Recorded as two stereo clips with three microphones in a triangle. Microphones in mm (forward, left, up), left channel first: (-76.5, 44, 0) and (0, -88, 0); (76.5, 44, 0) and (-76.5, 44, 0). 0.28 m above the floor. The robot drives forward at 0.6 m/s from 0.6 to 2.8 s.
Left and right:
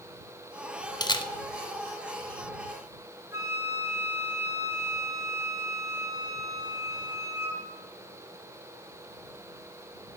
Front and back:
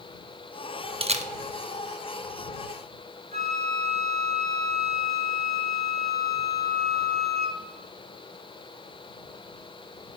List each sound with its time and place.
1.0 s a camera shutter: 165° left, 0.5 m; by 1.3 s 170° left, 0.6 m
3.3 s a flute: 135° right, 2.5 m